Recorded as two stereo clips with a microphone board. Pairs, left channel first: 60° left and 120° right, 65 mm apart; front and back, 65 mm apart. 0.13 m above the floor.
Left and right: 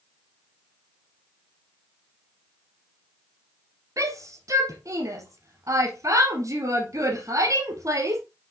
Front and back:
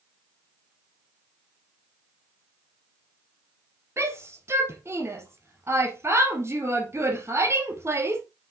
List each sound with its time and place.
4.0 s a shout: 145° right, 3 m